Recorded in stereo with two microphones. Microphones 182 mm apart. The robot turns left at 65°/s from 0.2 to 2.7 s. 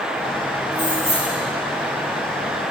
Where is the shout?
No shout in this recording.